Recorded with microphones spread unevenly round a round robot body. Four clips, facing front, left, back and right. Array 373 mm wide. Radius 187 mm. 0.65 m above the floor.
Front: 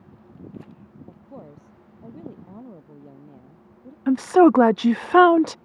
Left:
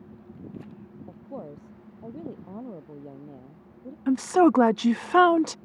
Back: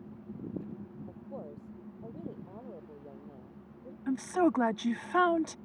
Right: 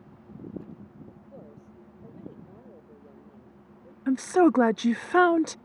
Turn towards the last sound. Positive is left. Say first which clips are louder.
# left 1 dB, front 13 dB
turn(degrees=5)